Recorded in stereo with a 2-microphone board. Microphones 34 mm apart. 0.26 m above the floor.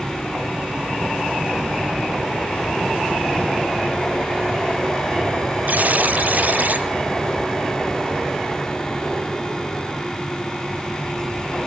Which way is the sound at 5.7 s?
55° right (ahead or behind).